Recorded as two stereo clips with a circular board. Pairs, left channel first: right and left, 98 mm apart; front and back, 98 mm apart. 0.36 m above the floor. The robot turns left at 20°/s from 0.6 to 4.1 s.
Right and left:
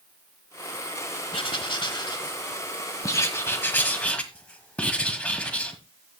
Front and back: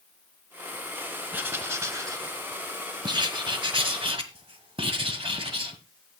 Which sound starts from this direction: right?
Writing, at 1.3 s.